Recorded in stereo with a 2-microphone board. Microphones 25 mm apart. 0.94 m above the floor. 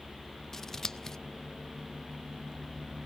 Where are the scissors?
20° left (ahead or behind), 0.5 m.